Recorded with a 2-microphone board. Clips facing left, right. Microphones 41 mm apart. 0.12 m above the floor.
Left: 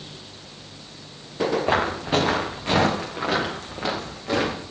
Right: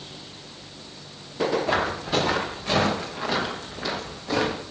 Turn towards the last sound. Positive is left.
turn(degrees=50)  # may be behind; listen again after turning